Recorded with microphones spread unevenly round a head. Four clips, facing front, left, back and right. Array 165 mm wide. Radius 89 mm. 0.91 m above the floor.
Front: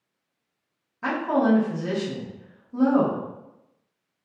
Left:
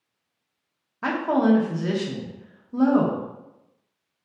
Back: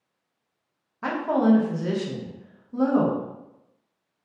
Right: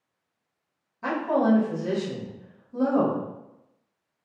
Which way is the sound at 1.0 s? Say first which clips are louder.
Left 2 dB, back 1 dB; 90° left.